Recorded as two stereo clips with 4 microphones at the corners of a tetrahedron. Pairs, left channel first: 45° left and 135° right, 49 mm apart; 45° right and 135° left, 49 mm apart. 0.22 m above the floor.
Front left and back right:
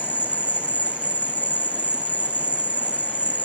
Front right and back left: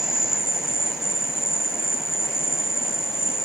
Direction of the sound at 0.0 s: 55° left.